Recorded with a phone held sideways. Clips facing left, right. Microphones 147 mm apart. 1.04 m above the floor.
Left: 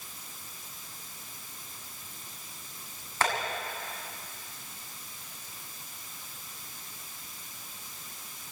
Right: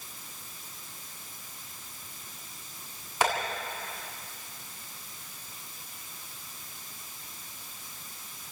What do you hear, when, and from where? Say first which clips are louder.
3.2 s tapping: right 2 dB; 15° right (ahead or behind), 7.5 m